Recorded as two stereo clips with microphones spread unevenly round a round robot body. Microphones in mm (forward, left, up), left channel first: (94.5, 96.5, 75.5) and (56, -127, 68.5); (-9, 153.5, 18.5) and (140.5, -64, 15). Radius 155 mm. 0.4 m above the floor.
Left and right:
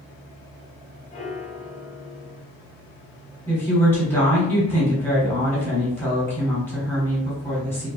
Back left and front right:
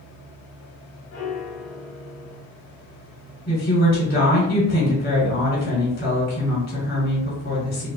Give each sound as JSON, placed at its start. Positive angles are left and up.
{"t": 1.1, "sound": "a piano", "azimuth_deg": 120, "distance_m": 0.9}
{"t": 3.5, "sound": "a woman speaking", "azimuth_deg": 155, "distance_m": 1.4}